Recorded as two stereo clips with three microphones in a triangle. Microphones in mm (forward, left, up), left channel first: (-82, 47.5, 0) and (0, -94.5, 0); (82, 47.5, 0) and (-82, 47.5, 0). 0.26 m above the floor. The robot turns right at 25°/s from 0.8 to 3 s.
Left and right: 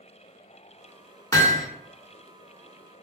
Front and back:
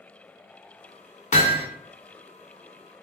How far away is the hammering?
About 0.6 m.